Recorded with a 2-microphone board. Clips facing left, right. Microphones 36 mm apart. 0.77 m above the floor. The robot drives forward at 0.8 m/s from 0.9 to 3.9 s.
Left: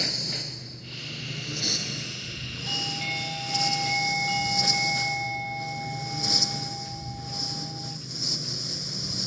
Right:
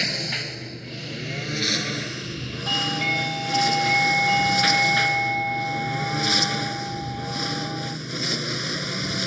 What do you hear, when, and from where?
0.0 s a lawn mower: 50° right (ahead or behind); by 9.3 s 75° right (ahead or behind)
2.7 s a doorbell: 35° right (ahead or behind); by 8.0 s 30° right (ahead or behind)